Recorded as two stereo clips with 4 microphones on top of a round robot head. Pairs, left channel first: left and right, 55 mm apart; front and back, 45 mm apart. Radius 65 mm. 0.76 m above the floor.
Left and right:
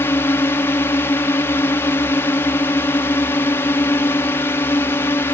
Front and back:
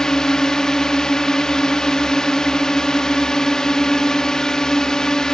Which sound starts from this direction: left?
A drone, at 0.0 s.